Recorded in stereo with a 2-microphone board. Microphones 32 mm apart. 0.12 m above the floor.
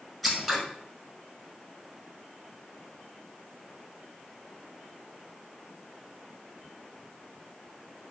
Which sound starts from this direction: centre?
Scissors, at 0.2 s.